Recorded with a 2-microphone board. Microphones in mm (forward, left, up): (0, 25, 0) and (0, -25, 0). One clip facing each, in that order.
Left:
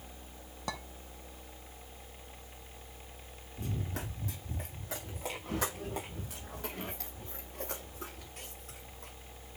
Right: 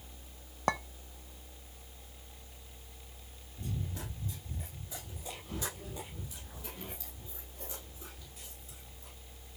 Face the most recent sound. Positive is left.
turn(degrees=65)  # may be behind; listen again after turning